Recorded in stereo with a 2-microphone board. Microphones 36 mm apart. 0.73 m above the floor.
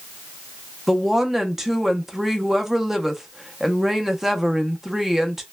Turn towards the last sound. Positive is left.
turn(degrees=-10)  # may be behind; listen again after turning